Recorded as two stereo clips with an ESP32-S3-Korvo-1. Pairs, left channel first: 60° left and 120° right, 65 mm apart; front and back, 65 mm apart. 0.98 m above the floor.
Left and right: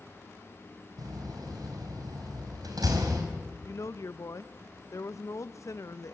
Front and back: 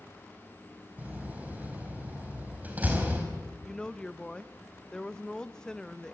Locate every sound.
1.0 s a door slam: 115° right, 4.5 m
3.6 s a woman speaking: 75° left, 0.7 m